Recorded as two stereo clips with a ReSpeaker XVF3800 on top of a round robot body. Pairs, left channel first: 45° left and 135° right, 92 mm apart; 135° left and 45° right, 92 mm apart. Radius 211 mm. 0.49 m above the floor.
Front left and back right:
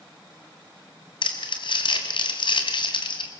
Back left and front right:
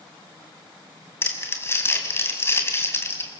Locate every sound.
1.2 s crumpling: 75° left, 2.5 m